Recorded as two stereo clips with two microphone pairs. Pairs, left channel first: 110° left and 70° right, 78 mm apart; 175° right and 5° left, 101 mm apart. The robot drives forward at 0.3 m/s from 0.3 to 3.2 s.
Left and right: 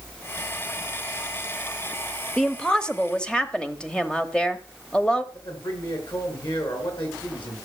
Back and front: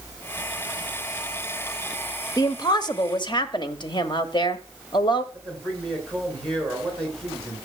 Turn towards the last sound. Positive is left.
turn(degrees=105)